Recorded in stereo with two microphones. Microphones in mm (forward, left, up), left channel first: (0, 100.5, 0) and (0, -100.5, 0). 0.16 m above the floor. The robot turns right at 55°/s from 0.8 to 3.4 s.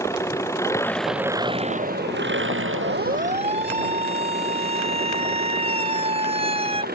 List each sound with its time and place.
0.0 s an engine running: 165° left; by 7.0 s 50° right
2.8 s a siren: 60° right (ahead or behind); by 6.8 s 30° right (ahead or behind)